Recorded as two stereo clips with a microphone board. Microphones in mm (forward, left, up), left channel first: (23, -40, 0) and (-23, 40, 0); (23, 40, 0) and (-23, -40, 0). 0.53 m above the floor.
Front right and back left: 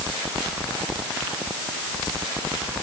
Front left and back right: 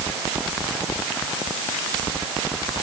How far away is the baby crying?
No baby crying in this recording.